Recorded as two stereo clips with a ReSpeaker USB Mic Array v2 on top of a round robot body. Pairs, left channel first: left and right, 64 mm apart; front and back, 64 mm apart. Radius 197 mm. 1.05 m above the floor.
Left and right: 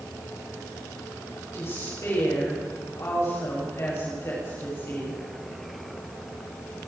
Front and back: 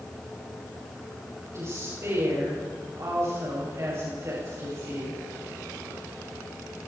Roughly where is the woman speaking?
Behind left.